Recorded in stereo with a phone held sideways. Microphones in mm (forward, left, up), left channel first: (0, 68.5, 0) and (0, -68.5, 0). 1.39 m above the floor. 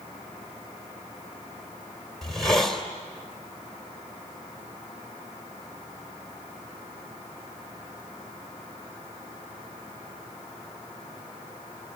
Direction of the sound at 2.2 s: 5° left (ahead or behind).